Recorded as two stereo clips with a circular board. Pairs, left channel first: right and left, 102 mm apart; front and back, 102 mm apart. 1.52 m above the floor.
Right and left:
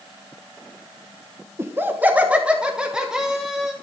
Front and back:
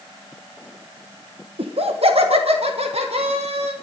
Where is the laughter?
155° left, 1.3 m; by 3.7 s 175° left, 3 m.